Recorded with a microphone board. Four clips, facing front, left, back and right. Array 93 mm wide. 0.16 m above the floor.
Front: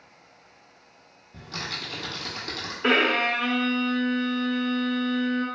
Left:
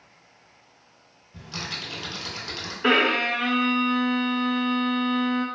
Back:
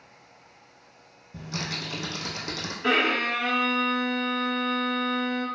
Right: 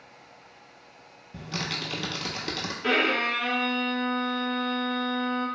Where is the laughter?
No laughter in this recording.